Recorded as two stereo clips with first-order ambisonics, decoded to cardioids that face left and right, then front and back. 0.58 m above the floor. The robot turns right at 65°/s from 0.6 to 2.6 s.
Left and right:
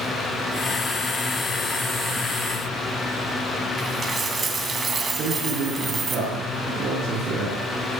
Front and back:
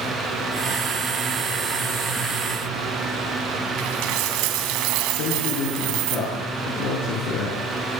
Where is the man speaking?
30° right, 7.5 m.